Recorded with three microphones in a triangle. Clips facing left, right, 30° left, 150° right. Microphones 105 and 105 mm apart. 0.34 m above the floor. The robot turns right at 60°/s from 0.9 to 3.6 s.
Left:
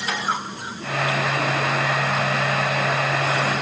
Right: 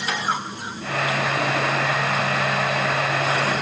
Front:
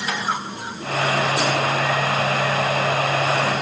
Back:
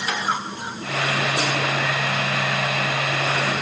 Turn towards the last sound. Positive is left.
No sound to turn to.